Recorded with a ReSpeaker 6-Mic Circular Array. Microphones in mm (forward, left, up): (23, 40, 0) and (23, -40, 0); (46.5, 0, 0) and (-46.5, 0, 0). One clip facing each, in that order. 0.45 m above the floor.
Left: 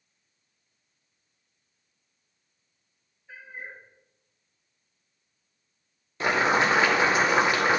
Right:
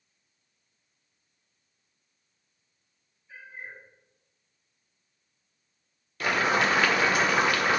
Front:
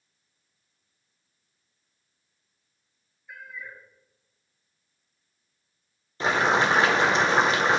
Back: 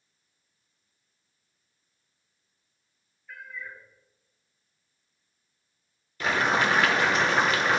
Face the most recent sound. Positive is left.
turn(degrees=45)